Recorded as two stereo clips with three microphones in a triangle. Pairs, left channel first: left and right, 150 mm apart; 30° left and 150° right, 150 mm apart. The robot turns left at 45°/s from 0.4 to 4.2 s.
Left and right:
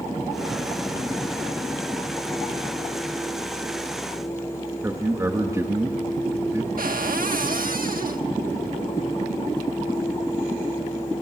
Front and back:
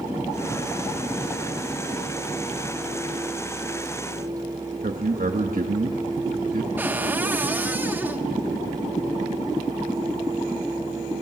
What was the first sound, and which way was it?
A man speaking, 160° right.